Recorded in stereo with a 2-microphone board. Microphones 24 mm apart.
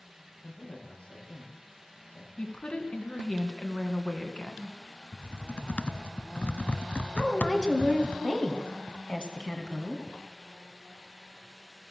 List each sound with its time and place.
0.4 s a man speaking: 65° left (ahead or behind), 8.5 m
2.4 s a woman speaking: 50° left (ahead or behind), 2 m
5.1 s typing on a keyboard: 65° left (ahead or behind), 0.6 m
7.2 s a woman speaking: 35° left (ahead or behind), 2 m